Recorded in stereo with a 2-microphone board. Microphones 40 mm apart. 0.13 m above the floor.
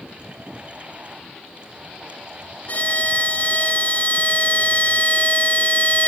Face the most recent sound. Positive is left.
turn(degrees=40)  # may be behind; listen again after turning